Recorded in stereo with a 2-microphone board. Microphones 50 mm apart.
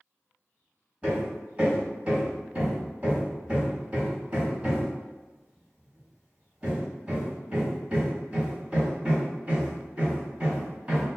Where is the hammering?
25° right (ahead or behind), 1.0 m.